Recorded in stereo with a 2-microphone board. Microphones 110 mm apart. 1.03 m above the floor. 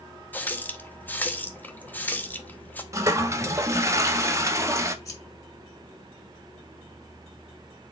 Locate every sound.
0.3 s a running tap: 15° left (ahead or behind), 0.7 m
2.9 s a toilet flushing: 25° right (ahead or behind), 0.6 m
5.0 s scissors: 30° left (ahead or behind), 2.5 m